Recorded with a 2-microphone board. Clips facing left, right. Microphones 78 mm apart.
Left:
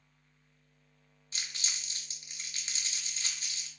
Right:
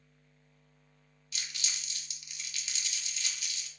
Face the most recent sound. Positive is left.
turn(degrees=35)  # may be behind; listen again after turning